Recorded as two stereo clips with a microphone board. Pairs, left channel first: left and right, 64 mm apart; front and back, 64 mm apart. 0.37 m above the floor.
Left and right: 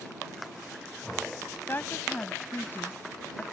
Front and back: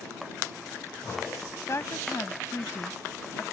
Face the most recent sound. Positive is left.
turn(degrees=35)